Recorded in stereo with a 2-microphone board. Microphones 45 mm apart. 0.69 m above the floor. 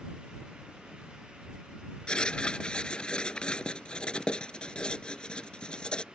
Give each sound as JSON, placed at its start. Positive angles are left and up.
{"t": 2.1, "sound": "writing", "side_deg": 20}